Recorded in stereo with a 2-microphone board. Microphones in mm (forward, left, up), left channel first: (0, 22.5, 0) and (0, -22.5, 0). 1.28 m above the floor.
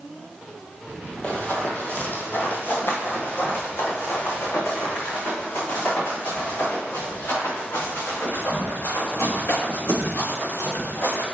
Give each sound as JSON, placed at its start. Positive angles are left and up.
{"t": 1.2, "sound": "running footsteps", "side_deg": 35, "distance_m": 1.6}